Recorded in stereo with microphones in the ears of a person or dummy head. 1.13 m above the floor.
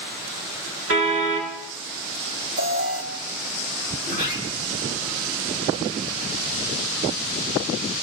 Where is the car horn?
60° right (ahead or behind), 6 m.